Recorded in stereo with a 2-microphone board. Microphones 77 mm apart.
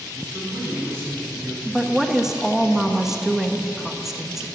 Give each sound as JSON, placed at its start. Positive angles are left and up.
{"t": 0.1, "sound": "a man speaking", "side_deg": -30, "distance_m": 4.5}
{"t": 1.6, "sound": "a woman speaking", "side_deg": -5, "distance_m": 0.9}